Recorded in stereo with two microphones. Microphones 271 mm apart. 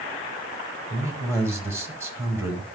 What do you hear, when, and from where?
0.9 s a man speaking: 10° right (ahead or behind), 2 m